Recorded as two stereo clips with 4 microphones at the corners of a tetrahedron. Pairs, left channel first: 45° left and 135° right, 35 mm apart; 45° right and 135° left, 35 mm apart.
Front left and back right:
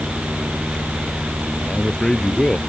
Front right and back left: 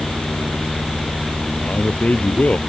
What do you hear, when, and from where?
1.6 s a man speaking: 20° right